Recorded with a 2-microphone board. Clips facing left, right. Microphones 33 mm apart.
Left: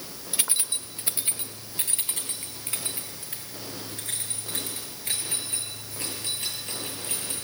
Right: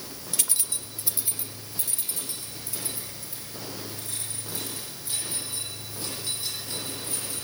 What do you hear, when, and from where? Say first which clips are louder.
0.3 s keys jangling: left 3 dB; 25° left (ahead or behind), 1.2 m; by 7.5 s 60° left (ahead or behind), 11 m